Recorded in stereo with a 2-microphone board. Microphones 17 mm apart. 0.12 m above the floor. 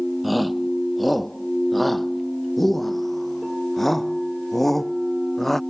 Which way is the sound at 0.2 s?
5° right (ahead or behind).